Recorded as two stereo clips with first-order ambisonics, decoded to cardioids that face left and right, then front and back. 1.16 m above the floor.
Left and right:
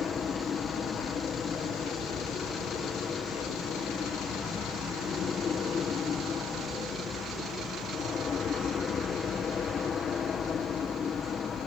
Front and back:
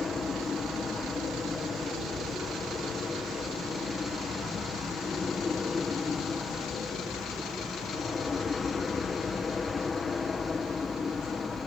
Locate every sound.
0.0 s an aircraft: 55° left